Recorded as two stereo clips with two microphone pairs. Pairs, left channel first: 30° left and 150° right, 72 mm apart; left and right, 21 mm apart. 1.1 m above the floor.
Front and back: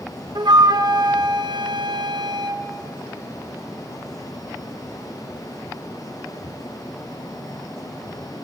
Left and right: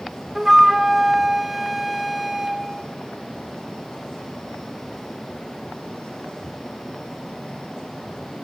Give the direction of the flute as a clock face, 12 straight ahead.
6 o'clock.